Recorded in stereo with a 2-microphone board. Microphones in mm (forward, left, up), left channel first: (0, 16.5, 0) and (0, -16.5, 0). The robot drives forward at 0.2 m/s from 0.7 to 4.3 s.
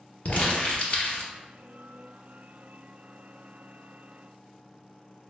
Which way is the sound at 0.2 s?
45° left (ahead or behind).